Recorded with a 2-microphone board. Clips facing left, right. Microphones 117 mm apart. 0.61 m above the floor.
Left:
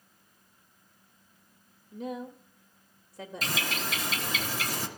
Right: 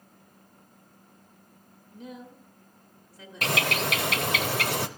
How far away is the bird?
About 0.7 m.